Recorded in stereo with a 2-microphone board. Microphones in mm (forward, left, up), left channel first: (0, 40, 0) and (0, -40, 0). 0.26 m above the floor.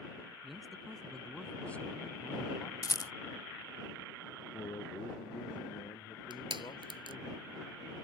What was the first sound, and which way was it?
A man speaking, 5° right (ahead or behind).